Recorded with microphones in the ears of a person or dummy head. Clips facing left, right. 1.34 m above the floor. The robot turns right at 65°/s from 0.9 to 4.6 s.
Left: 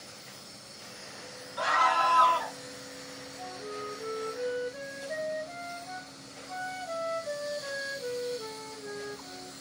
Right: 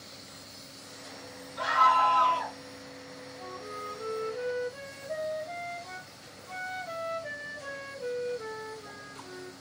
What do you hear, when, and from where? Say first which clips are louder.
1.6 s a scream: right 2 dB; 120° left, 1.5 m; by 2.5 s 175° right, 1.5 m
3.4 s a flute: left 3 dB; 135° right, 1.3 m; by 9.5 s 60° right, 1.3 m